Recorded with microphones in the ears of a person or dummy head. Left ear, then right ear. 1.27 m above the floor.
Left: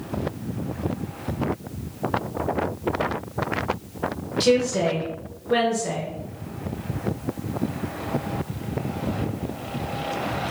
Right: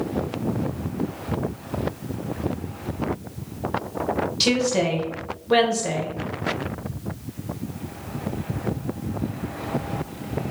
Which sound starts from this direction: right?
A woman speaking, at 4.4 s.